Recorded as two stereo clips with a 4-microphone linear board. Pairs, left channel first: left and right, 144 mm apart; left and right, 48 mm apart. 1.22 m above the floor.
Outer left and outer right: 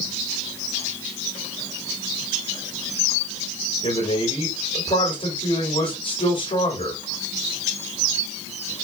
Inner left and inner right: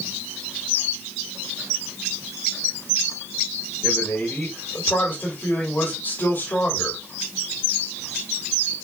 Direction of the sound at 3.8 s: 55° left (ahead or behind).